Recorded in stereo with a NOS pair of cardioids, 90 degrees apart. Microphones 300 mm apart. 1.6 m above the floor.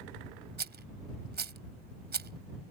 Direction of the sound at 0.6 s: 35° right.